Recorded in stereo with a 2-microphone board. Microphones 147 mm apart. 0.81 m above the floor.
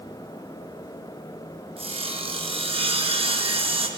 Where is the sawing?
40° right (ahead or behind), 0.5 m.